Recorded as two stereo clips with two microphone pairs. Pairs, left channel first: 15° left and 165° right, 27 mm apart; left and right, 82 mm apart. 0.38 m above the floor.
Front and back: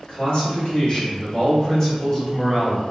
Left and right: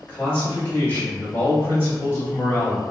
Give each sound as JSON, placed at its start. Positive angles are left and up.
{"t": 0.1, "sound": "a man speaking", "azimuth_deg": 25, "distance_m": 1.7}